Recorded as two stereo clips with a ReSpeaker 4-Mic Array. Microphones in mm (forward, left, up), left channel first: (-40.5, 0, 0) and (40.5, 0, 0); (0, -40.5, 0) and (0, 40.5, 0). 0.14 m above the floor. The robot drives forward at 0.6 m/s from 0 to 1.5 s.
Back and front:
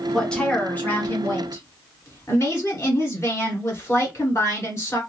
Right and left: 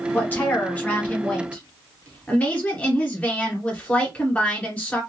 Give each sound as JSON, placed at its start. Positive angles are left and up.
{"t": 0.1, "sound": "a woman speaking", "azimuth_deg": -105, "distance_m": 1.3}